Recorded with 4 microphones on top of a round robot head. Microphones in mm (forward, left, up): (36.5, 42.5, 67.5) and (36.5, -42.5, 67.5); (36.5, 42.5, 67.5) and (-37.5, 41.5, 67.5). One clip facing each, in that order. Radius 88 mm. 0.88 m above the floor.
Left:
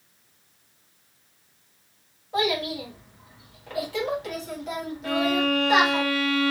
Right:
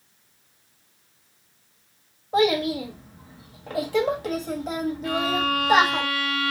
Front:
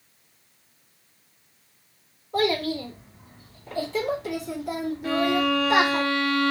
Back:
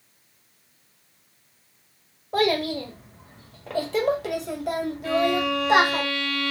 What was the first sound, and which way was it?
A child speaking, 150° right.